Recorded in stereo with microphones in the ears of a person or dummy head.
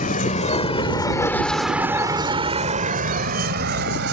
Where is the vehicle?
40° left (ahead or behind); by 4.1 s 65° right (ahead or behind).